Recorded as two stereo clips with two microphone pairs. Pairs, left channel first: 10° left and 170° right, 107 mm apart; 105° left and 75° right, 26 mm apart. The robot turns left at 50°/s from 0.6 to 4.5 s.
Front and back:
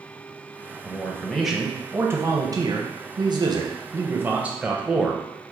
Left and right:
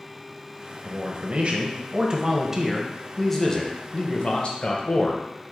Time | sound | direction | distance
0.8 | a man speaking | 55° right | 0.7 m